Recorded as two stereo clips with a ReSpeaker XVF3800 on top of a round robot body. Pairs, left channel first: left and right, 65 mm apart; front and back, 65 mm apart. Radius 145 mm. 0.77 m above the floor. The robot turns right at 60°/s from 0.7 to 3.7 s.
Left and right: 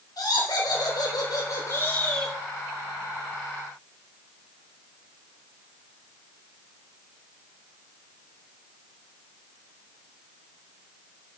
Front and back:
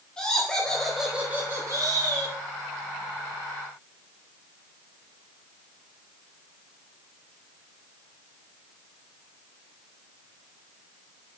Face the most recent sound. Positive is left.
turn(degrees=-100)